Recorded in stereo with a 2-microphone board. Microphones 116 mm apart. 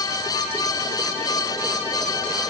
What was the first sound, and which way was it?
Only background noise.